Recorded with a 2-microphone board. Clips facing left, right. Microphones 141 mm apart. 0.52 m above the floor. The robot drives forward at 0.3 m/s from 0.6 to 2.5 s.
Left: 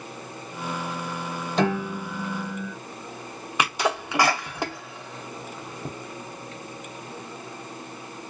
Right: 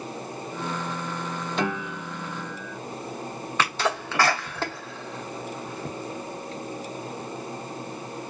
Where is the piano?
40° left (ahead or behind), 0.9 m; by 2.8 s 30° left (ahead or behind), 1.1 m.